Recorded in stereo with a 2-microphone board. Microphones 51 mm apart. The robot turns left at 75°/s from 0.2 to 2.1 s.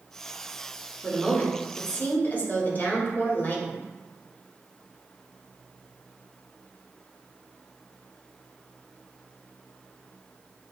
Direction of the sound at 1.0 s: Straight behind.